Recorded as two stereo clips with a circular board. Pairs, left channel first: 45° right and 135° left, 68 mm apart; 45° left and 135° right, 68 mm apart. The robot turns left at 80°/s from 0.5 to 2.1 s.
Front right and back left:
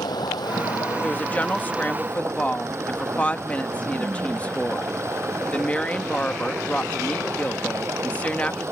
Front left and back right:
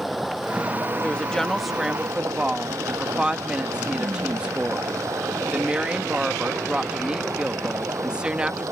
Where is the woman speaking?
Straight ahead; by 8.7 s 85° right.